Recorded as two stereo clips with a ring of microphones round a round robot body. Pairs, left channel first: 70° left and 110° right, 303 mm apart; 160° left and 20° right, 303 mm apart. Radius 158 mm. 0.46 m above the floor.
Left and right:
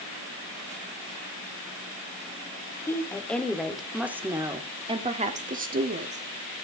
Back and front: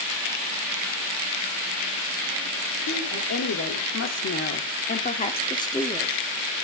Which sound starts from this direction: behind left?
A woman speaking, at 2.9 s.